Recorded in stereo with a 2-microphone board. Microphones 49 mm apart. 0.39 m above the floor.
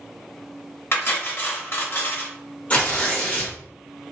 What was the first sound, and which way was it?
Cutlery clinking, 50° left (ahead or behind).